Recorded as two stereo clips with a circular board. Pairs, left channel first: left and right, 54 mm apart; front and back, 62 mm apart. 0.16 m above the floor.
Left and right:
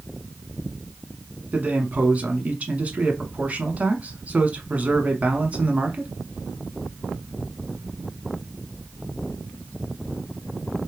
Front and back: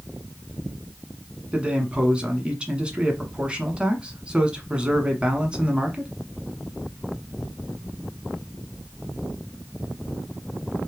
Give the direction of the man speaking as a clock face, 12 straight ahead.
4 o'clock.